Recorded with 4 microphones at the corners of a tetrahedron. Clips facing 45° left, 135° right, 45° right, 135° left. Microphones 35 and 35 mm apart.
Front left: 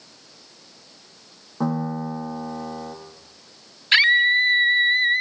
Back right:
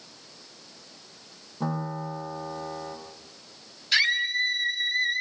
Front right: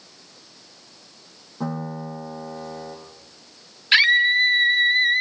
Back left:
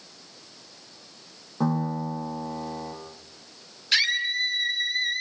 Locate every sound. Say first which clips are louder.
1.6 s a piano: front left 6 dB, back left 3 dB; 75° left, 8.5 m
3.9 s a scream: front left 8 dB, front right 9 dB; 10° left, 2.5 m